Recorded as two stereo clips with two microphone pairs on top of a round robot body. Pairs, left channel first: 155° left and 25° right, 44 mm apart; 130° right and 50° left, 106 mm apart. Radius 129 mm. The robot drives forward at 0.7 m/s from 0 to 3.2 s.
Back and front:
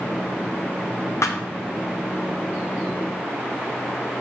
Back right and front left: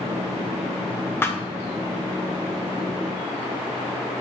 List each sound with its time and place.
1.2 s a thud: 155° left, 0.8 m; by 1.4 s 160° left, 1.0 m